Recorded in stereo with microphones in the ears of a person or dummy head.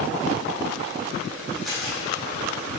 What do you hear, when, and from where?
1.6 s a camera shutter: centre (ahead or behind), 3 m